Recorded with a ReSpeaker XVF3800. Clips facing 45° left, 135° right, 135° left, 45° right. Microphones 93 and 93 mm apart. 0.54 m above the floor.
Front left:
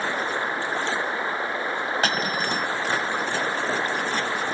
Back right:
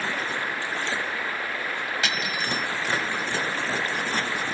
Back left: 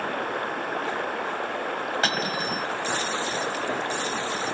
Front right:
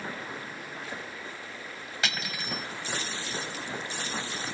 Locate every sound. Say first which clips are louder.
0.0 s running water: front left 3 dB, back left 10 dB; 110° left
2.0 s cutlery clinking: front left 3 dB, back left 8 dB; 90° left